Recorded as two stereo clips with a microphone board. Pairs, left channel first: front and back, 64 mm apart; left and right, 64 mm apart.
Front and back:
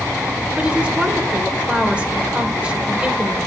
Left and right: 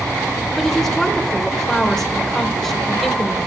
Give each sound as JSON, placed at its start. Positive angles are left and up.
{"t": 0.6, "sound": "a woman speaking", "azimuth_deg": 155, "distance_m": 0.8}